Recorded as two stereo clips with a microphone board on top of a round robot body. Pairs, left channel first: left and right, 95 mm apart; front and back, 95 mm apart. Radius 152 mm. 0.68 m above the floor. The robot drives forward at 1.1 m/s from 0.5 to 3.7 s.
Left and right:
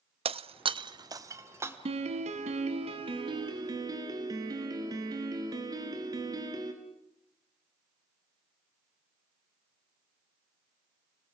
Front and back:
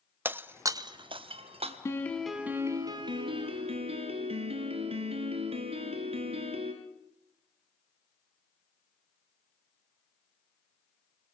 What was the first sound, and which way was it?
Breaking glass, 110° right.